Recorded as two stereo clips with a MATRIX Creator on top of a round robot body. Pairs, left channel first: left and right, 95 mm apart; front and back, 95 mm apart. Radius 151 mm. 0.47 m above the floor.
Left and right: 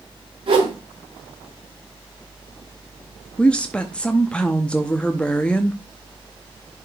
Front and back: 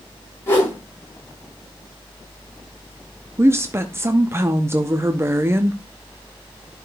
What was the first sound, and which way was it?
A whoosh, 65° right.